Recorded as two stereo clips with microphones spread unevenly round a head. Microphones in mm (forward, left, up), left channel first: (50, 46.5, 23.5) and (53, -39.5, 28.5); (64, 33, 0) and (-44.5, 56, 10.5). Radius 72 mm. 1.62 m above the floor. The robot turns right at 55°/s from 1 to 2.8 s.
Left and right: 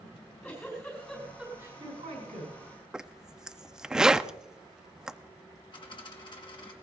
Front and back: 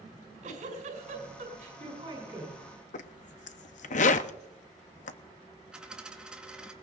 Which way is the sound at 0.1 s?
170° left.